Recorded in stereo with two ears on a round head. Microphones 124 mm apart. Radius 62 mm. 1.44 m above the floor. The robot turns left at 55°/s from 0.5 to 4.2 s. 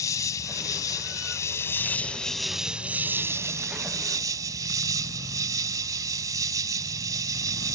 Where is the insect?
25° left (ahead or behind); by 7.8 s 30° right (ahead or behind).